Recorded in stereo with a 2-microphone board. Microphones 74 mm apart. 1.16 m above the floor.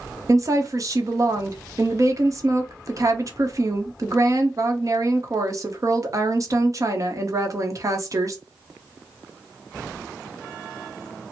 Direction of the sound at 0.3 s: 45° right (ahead or behind).